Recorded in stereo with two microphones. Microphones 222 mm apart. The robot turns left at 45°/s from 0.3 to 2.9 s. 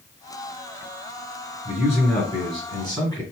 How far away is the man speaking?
About 1.6 m.